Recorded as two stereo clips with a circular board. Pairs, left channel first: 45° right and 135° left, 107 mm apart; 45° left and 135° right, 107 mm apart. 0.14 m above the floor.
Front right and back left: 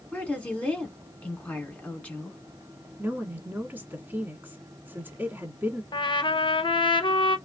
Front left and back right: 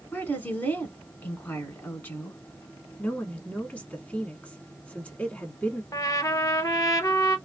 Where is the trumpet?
10° right, 0.5 m.